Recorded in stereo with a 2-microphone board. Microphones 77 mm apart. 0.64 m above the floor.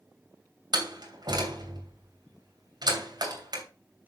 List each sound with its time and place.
0.7 s a door slam: 65° right (ahead or behind), 2.5 m